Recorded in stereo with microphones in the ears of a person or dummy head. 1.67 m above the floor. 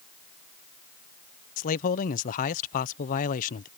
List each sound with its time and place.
1.6 s a man speaking: 50° left (ahead or behind)